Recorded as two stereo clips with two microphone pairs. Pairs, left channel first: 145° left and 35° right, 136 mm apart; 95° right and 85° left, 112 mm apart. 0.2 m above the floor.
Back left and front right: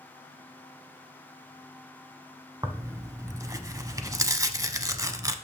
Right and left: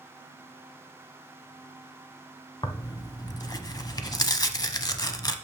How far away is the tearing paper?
About 0.7 m.